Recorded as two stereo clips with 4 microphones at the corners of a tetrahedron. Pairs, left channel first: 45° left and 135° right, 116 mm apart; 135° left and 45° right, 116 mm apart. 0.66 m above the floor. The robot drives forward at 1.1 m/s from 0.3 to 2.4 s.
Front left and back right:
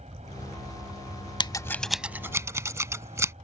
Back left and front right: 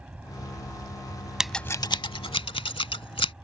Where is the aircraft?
125° right.